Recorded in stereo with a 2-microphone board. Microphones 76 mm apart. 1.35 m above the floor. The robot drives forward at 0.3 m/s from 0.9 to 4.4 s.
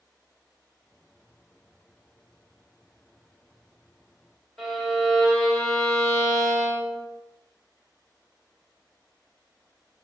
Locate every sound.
4.6 s a violin: 5° left (ahead or behind), 0.9 m